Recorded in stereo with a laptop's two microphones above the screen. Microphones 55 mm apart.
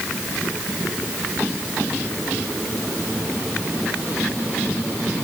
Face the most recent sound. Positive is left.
No sound to turn to.